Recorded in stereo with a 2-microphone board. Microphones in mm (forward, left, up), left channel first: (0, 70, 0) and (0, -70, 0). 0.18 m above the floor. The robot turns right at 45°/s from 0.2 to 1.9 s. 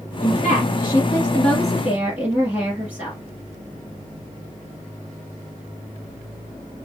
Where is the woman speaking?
120° left, 3 m; by 3.2 s 165° right, 3 m.